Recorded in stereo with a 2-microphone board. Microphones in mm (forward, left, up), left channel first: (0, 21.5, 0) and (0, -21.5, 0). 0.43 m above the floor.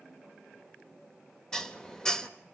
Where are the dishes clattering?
10° left (ahead or behind), 0.9 m.